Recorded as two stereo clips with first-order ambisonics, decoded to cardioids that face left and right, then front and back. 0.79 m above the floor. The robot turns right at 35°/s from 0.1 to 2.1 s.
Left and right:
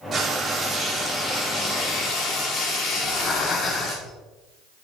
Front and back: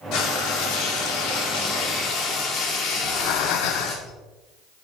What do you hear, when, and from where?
0.1 s frying: 20° right, 2.5 m; by 4.0 s 50° left, 2.5 m
3.0 s breathing: 25° left, 0.8 m